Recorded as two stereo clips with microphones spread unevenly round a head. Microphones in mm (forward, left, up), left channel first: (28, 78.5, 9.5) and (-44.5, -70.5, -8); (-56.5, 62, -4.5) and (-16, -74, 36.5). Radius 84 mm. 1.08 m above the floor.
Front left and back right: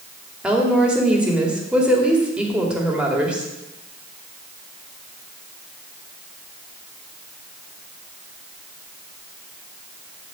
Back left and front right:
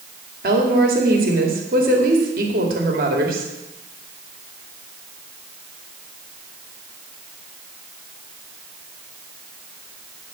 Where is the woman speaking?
30° right, 2.5 m.